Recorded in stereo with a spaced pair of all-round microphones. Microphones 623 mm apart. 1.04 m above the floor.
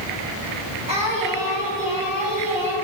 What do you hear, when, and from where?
0.9 s singing: 10° right (ahead or behind), 3 m